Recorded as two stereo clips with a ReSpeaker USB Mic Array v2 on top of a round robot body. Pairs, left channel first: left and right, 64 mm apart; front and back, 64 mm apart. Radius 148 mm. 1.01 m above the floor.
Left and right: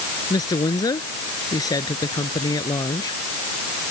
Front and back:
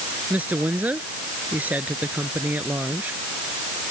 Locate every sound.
0.3 s a woman speaking: 110° left